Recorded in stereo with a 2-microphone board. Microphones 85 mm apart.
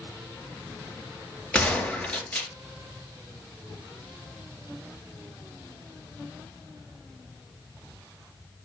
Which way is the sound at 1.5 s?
15° left (ahead or behind).